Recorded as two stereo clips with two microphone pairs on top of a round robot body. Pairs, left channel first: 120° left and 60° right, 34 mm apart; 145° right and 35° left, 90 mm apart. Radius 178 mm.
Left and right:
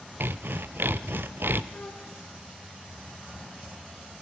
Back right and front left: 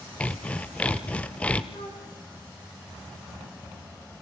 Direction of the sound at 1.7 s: 160° left.